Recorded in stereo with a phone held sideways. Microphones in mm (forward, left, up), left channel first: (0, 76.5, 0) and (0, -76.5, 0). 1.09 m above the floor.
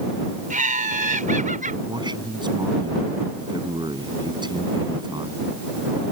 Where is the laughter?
60° right (ahead or behind).